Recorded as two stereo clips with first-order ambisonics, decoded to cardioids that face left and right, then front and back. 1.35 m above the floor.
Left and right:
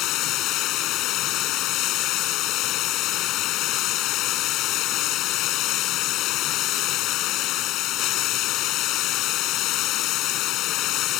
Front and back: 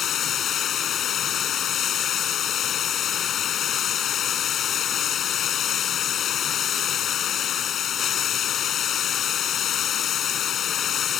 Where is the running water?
55° left.